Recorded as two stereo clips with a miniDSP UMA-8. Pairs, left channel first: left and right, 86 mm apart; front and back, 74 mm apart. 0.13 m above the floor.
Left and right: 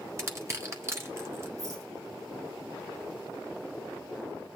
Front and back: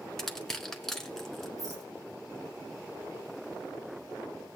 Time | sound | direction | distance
0.2 | crushing | 80° right | 1.4 m
1.6 | a rattle | 140° right | 3 m